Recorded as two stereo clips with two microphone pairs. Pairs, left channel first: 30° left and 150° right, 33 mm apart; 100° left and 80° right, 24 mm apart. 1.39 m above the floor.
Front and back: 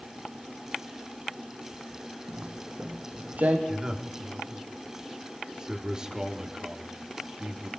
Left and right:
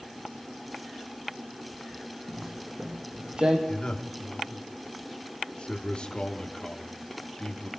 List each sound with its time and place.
2.3 s footsteps: 145° right, 2.5 m; by 3.6 s 120° right, 3 m
3.7 s a man speaking: 145° left, 3 m